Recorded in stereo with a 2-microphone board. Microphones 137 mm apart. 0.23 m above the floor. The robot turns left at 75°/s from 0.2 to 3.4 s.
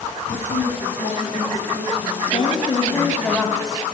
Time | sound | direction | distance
0.3 | a woman speaking | 90° left | 5 m
2.3 | a woman speaking | 80° left | 1.2 m